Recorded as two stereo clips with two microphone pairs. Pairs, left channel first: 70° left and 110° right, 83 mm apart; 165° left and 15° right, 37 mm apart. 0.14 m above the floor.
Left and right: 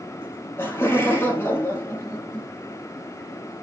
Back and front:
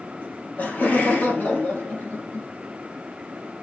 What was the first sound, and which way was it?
Laughter, 130° left.